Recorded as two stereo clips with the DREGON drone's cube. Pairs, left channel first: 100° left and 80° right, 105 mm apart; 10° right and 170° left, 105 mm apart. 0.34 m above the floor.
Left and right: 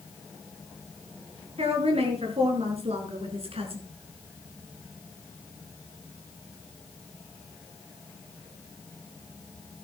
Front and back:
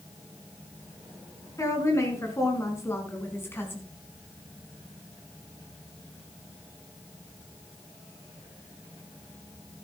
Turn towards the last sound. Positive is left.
turn(degrees=-80)